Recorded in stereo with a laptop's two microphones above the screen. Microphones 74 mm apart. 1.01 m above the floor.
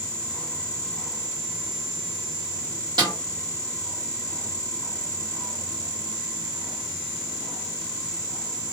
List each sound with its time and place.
3.0 s a snare drum: 80° right, 1.0 m